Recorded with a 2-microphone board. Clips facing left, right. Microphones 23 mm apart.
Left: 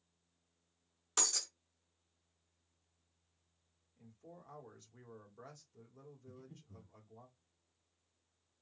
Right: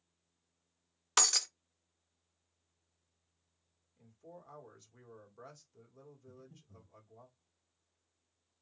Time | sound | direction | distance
1.2 | breaking glass | 55° right (ahead or behind) | 0.6 m
4.0 | a man speaking | 5° right (ahead or behind) | 1.5 m
6.3 | breathing | 85° left | 1.5 m